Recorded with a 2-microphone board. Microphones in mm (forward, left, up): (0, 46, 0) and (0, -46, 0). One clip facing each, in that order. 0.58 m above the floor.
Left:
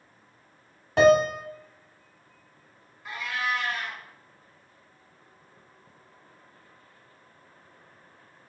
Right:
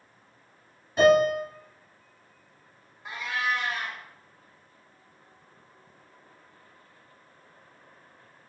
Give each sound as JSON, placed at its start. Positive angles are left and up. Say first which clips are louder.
{"t": 1.0, "sound": "a piano", "louder": "left 1 dB", "side_deg": 70, "distance_m": 0.6}
{"t": 3.0, "sound": "a cat meowing", "louder": "right 1 dB", "side_deg": -20, "distance_m": 0.5}